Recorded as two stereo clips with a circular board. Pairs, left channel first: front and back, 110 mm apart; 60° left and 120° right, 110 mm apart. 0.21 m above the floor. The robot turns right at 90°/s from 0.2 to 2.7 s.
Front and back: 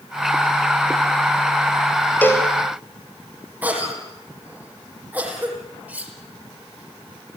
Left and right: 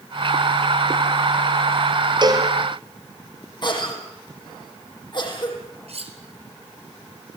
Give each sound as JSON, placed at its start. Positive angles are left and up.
{"t": 2.2, "sound": "a cowbell", "azimuth_deg": -75, "distance_m": 3.5}
{"t": 3.6, "sound": "a cough", "azimuth_deg": 105, "distance_m": 7.5}
{"t": 5.9, "sound": "cutlery clinking", "azimuth_deg": -105, "distance_m": 3.0}